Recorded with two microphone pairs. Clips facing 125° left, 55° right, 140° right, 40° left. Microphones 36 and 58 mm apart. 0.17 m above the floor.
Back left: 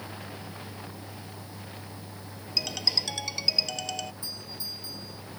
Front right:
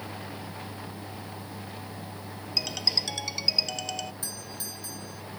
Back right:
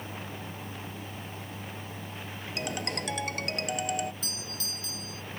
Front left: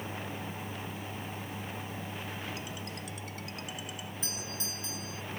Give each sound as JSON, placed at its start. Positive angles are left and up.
{"t": 2.6, "sound": "a ringtone", "azimuth_deg": -140}
{"t": 4.2, "sound": "a doorbell", "azimuth_deg": -25}